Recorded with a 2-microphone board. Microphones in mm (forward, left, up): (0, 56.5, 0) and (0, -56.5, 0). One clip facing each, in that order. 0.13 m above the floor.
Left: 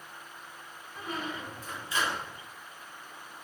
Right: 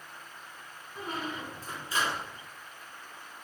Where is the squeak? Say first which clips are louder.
Even; 35° right (ahead or behind), 0.9 m.